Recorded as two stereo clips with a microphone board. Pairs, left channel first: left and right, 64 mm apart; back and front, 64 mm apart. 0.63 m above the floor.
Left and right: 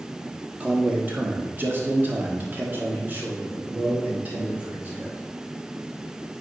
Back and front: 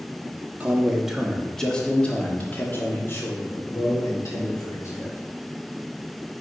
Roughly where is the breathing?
I don't hear breathing.